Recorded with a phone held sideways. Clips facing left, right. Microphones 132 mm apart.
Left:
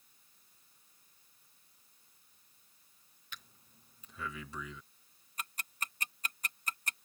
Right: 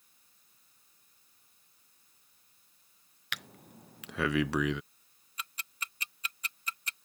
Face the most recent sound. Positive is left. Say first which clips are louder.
# left 1 dB
turn(degrees=45)  # may be behind; listen again after turning